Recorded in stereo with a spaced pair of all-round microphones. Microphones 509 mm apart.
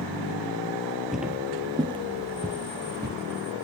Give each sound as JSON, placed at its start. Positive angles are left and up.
{"t": 1.1, "sound": "footsteps", "side_deg": 0, "distance_m": 2.0}